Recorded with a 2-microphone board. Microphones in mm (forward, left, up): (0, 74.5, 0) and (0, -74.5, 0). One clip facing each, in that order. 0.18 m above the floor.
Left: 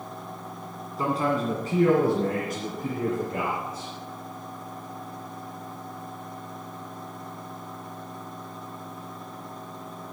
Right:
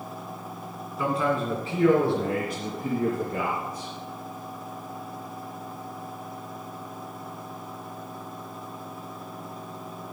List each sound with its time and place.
1.0 s a man speaking: 35° left (ahead or behind), 2.0 m